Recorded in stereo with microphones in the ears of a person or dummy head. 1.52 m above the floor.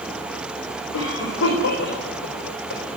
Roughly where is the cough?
Left.